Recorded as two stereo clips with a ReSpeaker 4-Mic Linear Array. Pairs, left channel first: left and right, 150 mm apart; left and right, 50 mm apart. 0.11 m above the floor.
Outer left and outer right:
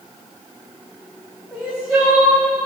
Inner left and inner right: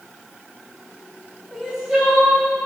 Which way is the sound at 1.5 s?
5° right (ahead or behind).